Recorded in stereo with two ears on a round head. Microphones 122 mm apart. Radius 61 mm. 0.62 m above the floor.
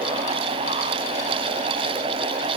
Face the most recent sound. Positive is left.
No sound to turn to.